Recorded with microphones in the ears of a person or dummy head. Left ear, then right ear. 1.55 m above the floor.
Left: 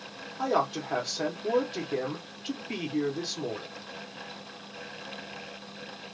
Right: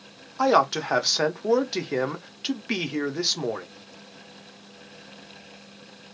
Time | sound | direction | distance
0.4 | a man speaking | 65° right (ahead or behind) | 0.7 m